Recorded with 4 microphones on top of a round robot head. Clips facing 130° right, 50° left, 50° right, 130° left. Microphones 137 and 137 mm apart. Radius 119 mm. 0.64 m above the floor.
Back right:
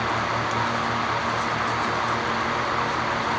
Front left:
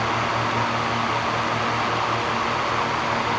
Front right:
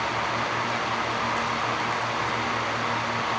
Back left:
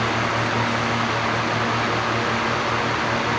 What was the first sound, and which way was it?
Only background noise.